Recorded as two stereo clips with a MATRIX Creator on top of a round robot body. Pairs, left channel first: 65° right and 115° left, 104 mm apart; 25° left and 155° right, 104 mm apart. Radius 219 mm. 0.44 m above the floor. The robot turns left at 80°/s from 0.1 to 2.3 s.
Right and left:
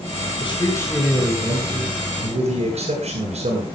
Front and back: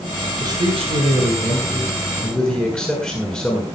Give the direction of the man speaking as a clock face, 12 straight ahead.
4 o'clock.